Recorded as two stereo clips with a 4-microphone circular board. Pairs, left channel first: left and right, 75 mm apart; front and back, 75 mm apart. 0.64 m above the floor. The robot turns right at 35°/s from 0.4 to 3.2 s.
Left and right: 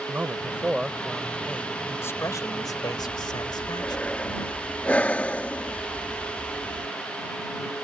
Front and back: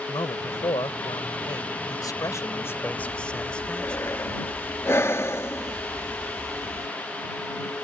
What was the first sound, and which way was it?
A man speaking, 20° right.